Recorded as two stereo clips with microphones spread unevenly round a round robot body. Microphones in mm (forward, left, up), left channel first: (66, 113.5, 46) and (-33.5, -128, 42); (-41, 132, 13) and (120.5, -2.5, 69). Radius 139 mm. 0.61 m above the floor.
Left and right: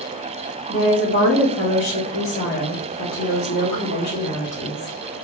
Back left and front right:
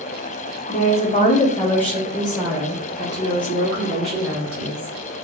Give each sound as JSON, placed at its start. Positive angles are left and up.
{"t": 0.7, "sound": "a woman speaking", "azimuth_deg": 125, "distance_m": 1.0}